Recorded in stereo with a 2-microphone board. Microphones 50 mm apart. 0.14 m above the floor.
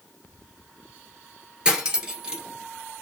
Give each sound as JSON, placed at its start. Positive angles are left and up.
{"t": 1.6, "sound": "cutlery clinking", "side_deg": -15, "distance_m": 1.4}